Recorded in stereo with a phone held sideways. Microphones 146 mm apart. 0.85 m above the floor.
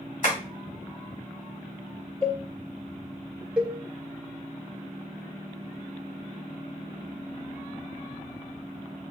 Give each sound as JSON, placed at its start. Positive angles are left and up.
{"t": 0.2, "sound": "tapping", "side_deg": 65, "distance_m": 1.6}
{"t": 2.2, "sound": "a cowbell", "side_deg": 40, "distance_m": 2.5}
{"t": 3.6, "sound": "a cowbell", "side_deg": -10, "distance_m": 0.8}